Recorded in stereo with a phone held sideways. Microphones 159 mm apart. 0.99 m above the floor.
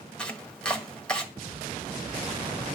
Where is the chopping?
5° left (ahead or behind), 1.4 m.